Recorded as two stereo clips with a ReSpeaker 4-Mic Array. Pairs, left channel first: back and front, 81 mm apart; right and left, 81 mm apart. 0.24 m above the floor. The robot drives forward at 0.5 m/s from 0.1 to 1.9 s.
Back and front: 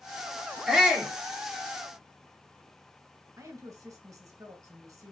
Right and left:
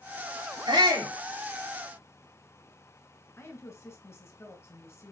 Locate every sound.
0.7 s a shout: 80° left, 3 m; by 1.1 s 85° left, 3 m
3.4 s a woman speaking: 40° right, 1.7 m